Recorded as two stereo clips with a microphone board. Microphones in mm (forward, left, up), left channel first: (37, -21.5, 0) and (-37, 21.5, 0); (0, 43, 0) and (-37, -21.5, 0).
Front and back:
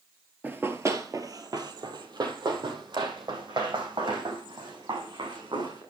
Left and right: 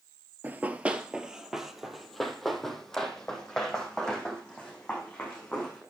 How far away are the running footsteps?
About 1.1 m.